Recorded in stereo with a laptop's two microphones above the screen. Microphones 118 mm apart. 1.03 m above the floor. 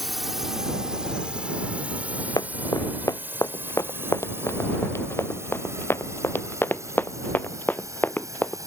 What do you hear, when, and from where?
0.0 s a drone: centre (ahead or behind); by 8.7 s 30° right (ahead or behind)
2.4 s running footsteps: 30° left (ahead or behind); by 8.6 s 15° left (ahead or behind)